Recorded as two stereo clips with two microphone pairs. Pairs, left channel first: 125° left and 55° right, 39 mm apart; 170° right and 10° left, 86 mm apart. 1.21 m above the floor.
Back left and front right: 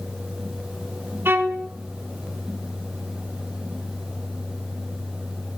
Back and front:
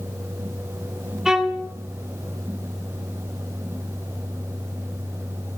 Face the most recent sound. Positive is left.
turn(degrees=-75)